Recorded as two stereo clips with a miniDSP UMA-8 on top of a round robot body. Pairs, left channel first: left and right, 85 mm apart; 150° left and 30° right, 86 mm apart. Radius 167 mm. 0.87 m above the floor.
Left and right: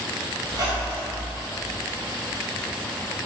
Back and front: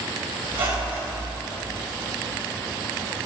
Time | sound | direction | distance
0.5 | a squeak | 45° right | 3 m